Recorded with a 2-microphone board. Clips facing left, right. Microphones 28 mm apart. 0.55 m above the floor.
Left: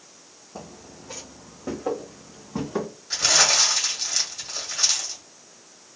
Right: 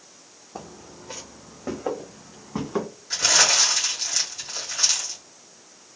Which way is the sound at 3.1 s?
Centre (ahead or behind).